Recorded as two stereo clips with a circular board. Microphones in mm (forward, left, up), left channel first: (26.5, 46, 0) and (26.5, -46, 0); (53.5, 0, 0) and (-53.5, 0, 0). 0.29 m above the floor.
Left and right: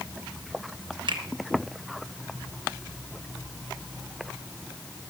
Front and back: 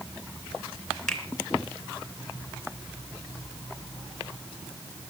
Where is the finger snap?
85° right, 2.5 m.